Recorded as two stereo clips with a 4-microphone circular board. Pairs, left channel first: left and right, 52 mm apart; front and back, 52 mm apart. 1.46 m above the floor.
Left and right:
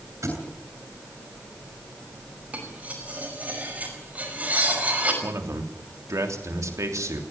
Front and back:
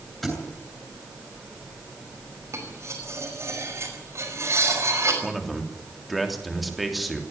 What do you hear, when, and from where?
0.2 s a thud: 85° right, 8 m
2.5 s cutlery clinking: 150° right, 5.5 m
5.2 s a man speaking: 90° right, 3 m